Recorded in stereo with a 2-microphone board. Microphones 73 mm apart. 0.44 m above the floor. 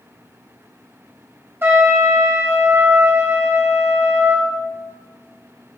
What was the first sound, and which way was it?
A trumpet, 30° right (ahead or behind).